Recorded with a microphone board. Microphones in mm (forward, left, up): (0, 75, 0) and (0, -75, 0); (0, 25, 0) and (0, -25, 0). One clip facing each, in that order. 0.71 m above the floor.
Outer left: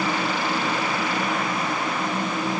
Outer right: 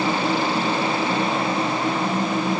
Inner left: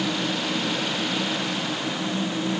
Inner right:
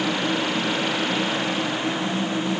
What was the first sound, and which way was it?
Only background noise.